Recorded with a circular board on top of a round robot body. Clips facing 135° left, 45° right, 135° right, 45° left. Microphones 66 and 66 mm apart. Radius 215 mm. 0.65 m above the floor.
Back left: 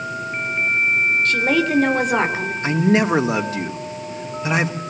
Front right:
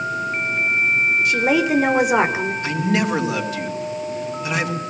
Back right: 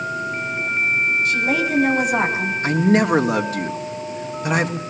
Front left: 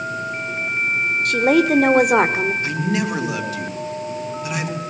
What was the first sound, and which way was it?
A woman speaking, 30° left.